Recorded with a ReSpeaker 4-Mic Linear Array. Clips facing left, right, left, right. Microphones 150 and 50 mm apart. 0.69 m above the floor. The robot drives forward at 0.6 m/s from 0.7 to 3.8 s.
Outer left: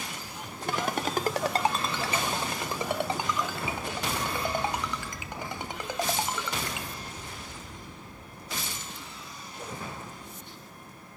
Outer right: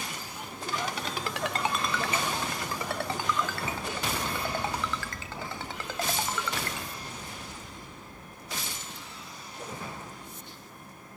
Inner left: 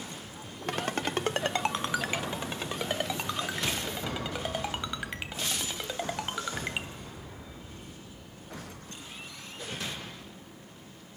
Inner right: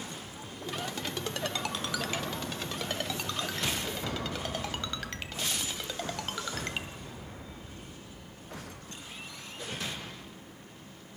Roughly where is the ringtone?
Left.